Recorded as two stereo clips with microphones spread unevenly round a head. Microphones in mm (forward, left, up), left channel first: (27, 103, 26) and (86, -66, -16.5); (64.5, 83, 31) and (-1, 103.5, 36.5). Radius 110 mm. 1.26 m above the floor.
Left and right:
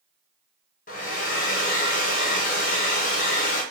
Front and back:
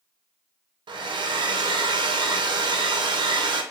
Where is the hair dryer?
170° left, 0.5 m.